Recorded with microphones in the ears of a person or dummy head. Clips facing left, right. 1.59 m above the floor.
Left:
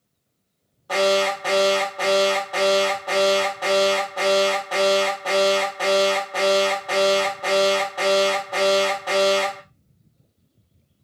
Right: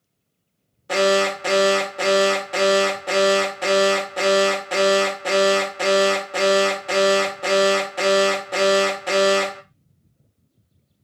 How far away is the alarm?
About 0.7 m.